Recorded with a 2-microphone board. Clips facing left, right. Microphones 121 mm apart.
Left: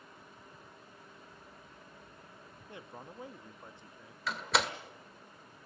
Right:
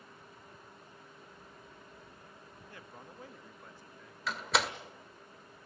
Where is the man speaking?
20° left (ahead or behind), 0.7 m.